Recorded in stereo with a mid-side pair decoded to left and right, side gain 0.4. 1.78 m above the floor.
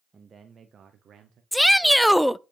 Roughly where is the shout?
Ahead.